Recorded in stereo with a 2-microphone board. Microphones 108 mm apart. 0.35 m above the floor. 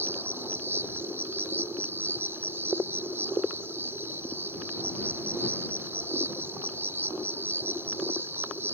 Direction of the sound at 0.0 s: 20° right (ahead or behind).